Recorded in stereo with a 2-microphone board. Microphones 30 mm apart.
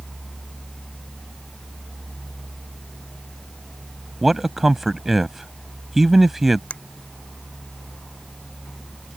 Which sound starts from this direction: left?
A finger snap, at 6.7 s.